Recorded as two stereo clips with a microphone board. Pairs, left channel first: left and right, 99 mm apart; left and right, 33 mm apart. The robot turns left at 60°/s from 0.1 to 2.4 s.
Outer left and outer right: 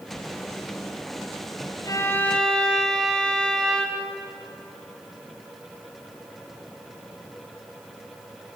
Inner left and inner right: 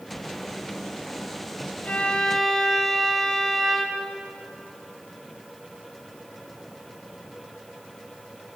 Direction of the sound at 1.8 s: 40° left.